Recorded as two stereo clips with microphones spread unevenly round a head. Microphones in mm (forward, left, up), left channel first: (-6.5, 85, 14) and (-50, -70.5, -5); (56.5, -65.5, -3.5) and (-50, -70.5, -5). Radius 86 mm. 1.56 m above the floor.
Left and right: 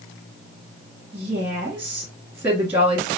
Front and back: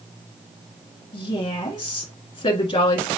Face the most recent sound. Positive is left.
turn(degrees=-25)